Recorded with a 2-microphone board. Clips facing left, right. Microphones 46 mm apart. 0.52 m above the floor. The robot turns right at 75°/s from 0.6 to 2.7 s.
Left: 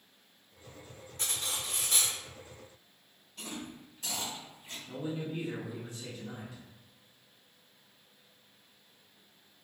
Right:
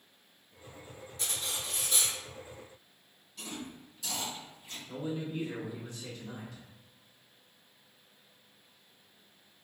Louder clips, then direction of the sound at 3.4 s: Even; 35° left (ahead or behind).